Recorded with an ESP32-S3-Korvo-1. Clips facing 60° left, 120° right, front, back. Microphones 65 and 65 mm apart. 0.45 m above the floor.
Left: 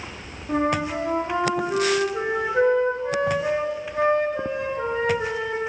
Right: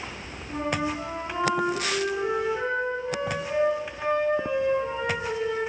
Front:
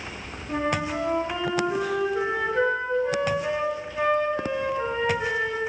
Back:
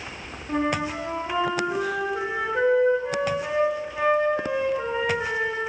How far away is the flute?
About 6 m.